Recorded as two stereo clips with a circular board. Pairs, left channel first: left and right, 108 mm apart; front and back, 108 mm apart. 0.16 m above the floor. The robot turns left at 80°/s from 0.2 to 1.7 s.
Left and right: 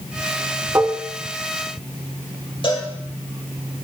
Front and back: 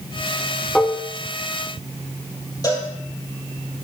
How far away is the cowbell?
About 3.5 m.